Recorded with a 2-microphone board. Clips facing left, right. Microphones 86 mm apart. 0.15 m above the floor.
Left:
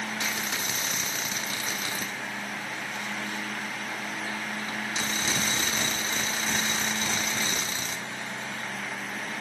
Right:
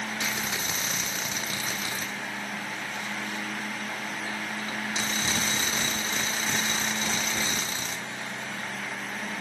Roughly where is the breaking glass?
No breaking glass in this recording.